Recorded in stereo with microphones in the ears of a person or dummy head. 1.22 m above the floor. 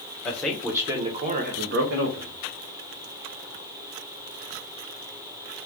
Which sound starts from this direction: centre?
A man speaking, at 0.2 s.